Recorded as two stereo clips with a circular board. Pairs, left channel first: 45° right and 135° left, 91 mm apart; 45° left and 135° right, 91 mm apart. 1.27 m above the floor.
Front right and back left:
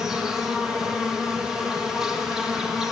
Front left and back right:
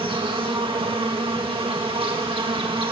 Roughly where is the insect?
Behind right.